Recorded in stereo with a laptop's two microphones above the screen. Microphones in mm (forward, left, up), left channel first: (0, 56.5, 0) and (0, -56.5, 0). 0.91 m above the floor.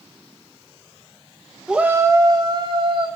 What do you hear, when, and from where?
1.7 s a shout: 5° right (ahead or behind), 1.0 m; by 3.1 s 50° right (ahead or behind), 2.5 m